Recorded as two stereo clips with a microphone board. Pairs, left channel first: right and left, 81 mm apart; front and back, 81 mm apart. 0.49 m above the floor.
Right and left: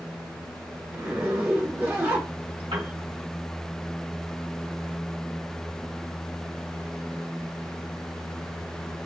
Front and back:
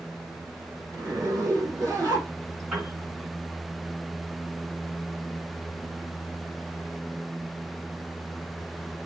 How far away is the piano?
About 2.5 m.